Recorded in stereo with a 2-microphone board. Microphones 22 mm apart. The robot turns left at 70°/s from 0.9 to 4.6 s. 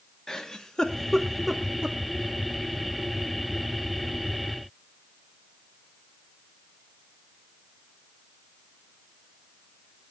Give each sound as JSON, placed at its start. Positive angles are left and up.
{"t": 0.3, "sound": "a giggle", "side_deg": 30, "distance_m": 1.7}